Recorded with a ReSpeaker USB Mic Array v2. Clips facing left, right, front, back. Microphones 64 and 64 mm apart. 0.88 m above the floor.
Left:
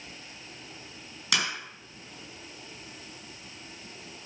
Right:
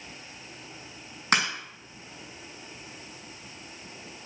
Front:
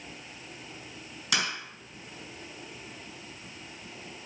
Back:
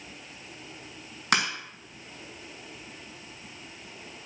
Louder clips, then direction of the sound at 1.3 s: Right 5 dB, back 5 dB; 140° right.